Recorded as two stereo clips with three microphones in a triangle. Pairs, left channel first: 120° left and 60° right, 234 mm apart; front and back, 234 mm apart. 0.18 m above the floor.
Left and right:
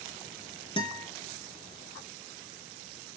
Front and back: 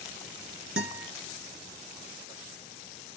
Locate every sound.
0.8 s a guitar: 175° right, 2 m